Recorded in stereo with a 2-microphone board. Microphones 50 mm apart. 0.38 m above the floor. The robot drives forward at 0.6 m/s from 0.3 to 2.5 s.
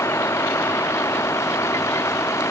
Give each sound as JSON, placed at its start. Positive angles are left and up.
{"t": 0.0, "sound": "a vehicle", "side_deg": 70}